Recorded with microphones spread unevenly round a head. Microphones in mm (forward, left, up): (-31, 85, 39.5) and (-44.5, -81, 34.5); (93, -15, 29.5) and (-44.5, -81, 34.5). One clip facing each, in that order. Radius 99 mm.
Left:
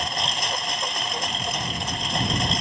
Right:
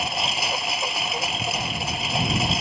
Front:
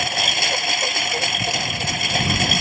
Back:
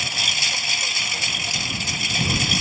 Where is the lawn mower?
10° right.